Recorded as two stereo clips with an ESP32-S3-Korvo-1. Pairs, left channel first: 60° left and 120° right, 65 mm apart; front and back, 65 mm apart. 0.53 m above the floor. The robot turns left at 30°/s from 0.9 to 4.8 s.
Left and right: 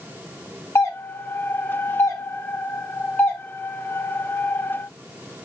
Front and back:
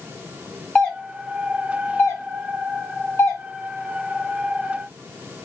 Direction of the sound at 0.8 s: 70° left.